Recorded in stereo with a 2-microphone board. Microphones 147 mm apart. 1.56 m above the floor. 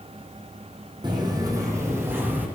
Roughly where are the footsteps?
Right.